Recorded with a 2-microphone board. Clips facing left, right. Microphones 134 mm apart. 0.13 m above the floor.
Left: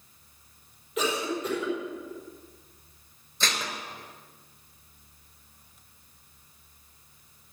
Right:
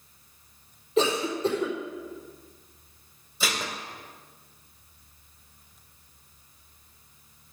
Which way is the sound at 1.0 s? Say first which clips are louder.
Right 4 dB; 30° right (ahead or behind).